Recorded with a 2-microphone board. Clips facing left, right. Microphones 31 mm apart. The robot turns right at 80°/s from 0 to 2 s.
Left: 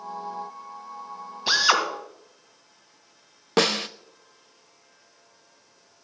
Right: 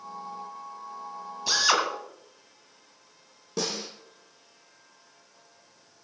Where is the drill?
145° left, 2 m; by 1.8 s 175° left, 2 m.